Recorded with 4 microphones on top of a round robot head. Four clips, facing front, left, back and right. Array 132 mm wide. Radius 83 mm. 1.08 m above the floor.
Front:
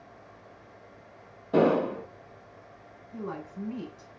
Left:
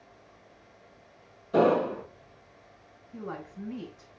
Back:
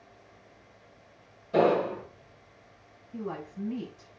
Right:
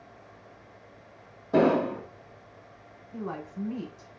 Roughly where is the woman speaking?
Ahead right.